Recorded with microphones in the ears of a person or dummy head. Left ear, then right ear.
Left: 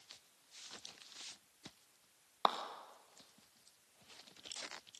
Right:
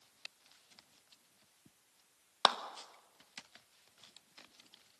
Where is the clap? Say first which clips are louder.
Right 5 dB; 50° right (ahead or behind), 1.2 m.